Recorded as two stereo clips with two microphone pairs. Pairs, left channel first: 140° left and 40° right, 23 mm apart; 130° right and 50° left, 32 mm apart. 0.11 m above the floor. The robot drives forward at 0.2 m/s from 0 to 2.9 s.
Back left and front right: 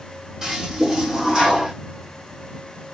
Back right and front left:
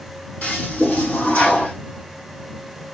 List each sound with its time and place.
0.4 s a toilet flushing: 110° right, 2.5 m; by 1.7 s 115° right, 2.5 m